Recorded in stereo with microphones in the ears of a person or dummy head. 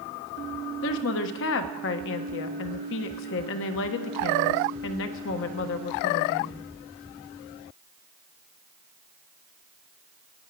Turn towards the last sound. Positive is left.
turn(degrees=60)  # may be behind; listen again after turning